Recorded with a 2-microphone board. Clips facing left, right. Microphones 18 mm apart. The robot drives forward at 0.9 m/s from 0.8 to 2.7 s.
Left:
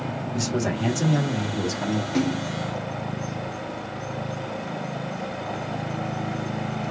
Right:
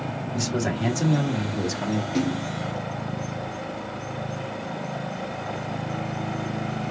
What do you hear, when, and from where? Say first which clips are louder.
0.3 s a man speaking: even; centre (ahead or behind), 1.9 m; by 2.0 s 5° right (ahead or behind), 0.8 m
2.1 s a splash: left 2 dB; 15° left (ahead or behind), 2 m; by 2.5 s 10° left (ahead or behind), 2.5 m